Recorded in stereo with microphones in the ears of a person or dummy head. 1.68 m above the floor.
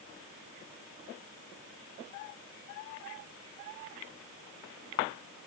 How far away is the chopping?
No chopping in this recording.